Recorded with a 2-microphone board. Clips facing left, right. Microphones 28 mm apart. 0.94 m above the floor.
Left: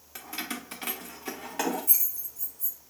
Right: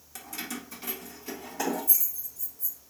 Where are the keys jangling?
15° left (ahead or behind), 0.6 m; by 2.8 s 65° left (ahead or behind), 1.6 m.